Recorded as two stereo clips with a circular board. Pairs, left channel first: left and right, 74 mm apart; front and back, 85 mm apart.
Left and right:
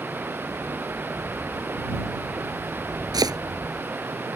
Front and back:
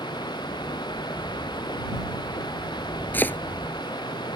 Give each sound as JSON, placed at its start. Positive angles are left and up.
{"t": 0.0, "sound": "running water", "azimuth_deg": -30}
{"t": 3.1, "sound": "chopping", "azimuth_deg": -65}